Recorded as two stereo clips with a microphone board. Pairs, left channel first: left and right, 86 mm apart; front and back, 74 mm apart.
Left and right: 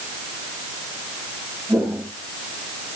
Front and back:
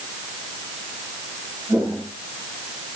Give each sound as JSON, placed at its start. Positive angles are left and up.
{"t": 1.7, "sound": "footsteps", "azimuth_deg": -175, "distance_m": 7.0}